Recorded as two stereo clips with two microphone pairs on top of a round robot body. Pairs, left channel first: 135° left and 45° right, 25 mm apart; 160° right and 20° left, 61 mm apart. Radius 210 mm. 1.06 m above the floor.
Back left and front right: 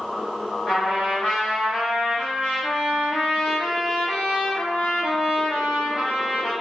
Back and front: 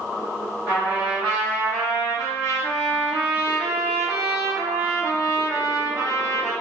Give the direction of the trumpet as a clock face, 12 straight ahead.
10 o'clock.